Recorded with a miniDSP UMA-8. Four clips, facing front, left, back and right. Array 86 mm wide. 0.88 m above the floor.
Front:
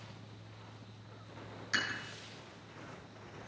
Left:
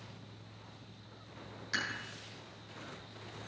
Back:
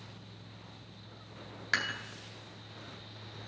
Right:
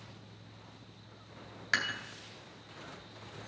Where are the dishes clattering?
140° right, 2.5 m.